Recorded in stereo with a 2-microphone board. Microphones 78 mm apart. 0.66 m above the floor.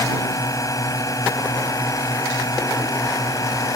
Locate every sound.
0.0 s a drone: 45° left (ahead or behind)